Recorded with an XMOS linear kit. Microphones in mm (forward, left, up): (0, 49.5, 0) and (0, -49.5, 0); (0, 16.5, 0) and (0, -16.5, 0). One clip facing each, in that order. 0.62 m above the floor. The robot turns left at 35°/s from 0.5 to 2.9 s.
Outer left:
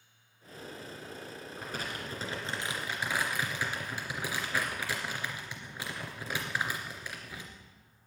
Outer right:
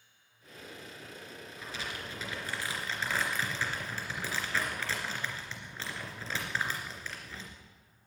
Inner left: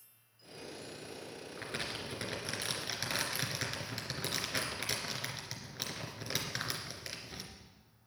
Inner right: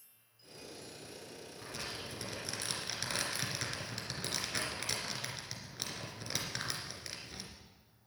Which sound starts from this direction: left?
Crumpling, at 1.6 s.